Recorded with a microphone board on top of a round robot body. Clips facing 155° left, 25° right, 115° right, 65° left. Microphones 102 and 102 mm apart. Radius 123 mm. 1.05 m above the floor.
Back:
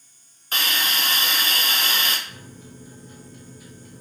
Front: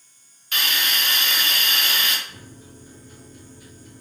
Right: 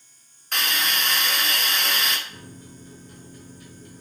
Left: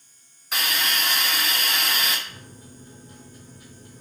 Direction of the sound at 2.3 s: 135° left.